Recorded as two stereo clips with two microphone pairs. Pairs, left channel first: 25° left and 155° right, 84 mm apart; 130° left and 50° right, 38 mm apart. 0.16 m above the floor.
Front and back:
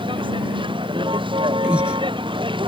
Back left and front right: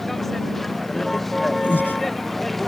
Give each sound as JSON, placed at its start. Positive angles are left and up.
{"t": 0.0, "sound": "a vehicle", "azimuth_deg": -145}
{"t": 1.6, "sound": "breathing", "azimuth_deg": 130}